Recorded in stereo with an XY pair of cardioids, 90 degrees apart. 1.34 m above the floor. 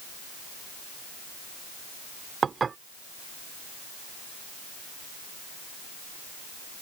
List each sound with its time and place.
2.4 s dishes clattering: 45° right